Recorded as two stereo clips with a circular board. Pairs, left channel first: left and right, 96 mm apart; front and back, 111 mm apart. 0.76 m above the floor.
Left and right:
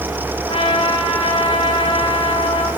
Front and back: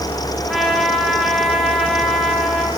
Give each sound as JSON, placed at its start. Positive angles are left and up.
{"t": 0.5, "sound": "a trumpet", "azimuth_deg": 90, "distance_m": 3.5}